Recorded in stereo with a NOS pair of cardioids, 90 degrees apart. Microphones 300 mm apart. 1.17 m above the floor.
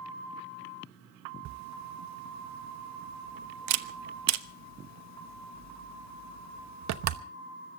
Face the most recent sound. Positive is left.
turn(degrees=-65)